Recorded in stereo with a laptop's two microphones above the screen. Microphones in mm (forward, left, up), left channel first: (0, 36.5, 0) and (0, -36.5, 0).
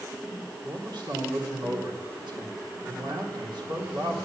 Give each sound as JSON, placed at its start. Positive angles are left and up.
{"t": 0.6, "sound": "a man speaking", "side_deg": -80, "distance_m": 3.5}